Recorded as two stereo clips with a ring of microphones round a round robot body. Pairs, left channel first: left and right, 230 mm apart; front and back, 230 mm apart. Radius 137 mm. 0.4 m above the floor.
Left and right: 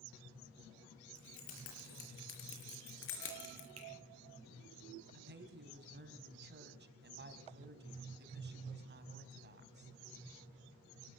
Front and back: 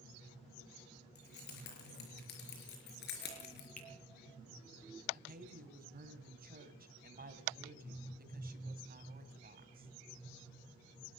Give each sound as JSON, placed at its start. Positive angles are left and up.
{"t": 1.1, "sound": "keys jangling", "azimuth_deg": 50, "distance_m": 7.0}
{"t": 3.8, "sound": "a finger snap", "azimuth_deg": -55, "distance_m": 9.0}
{"t": 5.1, "sound": "a woman speaking", "azimuth_deg": -130, "distance_m": 3.5}